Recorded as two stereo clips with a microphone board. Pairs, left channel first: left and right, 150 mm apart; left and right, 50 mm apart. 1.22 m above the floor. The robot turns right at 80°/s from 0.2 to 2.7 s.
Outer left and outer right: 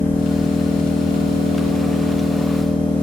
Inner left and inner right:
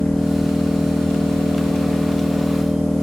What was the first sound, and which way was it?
An engine running, 170° left.